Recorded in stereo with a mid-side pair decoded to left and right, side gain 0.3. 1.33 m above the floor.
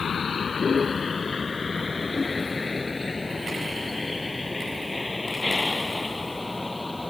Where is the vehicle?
65° left; by 7.1 s 20° left.